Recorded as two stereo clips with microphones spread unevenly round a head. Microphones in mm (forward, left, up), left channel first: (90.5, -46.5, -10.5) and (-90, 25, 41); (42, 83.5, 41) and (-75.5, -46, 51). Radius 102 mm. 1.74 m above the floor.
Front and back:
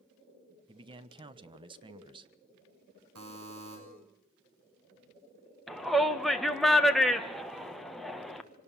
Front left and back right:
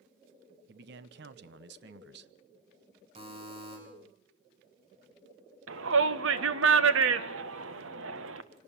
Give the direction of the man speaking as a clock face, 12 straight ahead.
5 o'clock.